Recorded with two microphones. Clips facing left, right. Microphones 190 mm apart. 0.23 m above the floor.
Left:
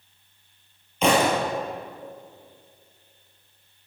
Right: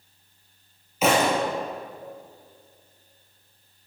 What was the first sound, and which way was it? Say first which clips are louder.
A thud: left 1 dB; 5° right (ahead or behind).